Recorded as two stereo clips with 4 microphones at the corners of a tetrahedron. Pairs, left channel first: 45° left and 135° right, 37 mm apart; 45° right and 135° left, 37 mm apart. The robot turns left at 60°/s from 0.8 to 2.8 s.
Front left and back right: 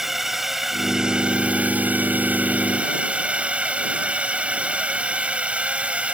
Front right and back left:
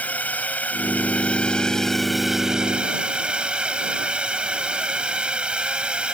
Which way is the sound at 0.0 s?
60° right.